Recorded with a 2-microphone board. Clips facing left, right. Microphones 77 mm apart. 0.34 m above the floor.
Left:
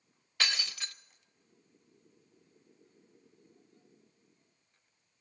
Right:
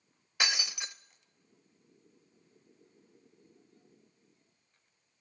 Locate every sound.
0.4 s breaking glass: 15° right (ahead or behind), 0.5 m